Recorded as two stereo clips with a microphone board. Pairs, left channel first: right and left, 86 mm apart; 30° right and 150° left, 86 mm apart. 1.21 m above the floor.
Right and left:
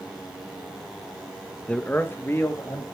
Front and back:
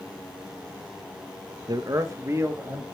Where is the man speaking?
170° right, 0.8 m; by 2.8 s 150° right, 2.5 m.